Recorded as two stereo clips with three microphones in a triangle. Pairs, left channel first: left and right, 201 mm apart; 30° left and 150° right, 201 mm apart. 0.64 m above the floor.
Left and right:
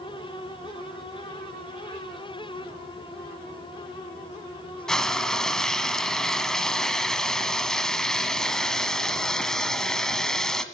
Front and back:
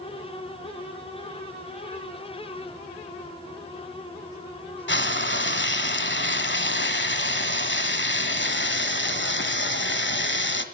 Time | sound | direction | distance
4.9 | frying | straight ahead | 1.3 m